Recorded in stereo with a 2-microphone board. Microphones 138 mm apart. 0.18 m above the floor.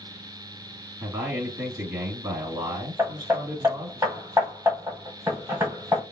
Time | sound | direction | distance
1.0 | a man speaking | 15° right (ahead or behind) | 1.5 m
3.0 | hammering | 15° right (ahead or behind) | 1.2 m